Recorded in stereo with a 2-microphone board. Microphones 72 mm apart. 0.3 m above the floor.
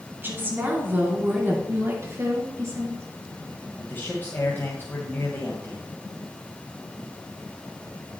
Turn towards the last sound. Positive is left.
turn(degrees=30)  # may be behind; listen again after turning